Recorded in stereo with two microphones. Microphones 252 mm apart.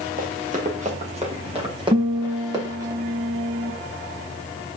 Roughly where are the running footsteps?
Right.